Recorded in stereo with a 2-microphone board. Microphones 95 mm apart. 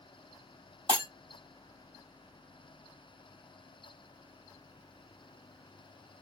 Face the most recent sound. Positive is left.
turn(degrees=-75)  # may be behind; listen again after turning